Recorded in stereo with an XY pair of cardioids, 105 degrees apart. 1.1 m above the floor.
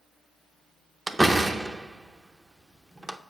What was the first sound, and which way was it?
A door slam, 15° right.